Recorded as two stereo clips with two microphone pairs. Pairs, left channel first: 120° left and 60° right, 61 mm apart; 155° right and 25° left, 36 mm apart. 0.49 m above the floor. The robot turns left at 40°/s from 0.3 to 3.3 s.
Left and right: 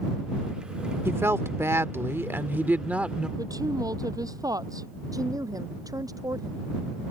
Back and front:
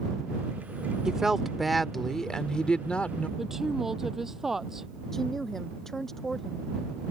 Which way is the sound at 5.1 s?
75° right.